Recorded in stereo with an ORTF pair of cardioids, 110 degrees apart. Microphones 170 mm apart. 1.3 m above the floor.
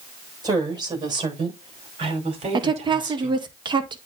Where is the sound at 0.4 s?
25° right, 7 m; by 3.4 s 45° right, 3.5 m.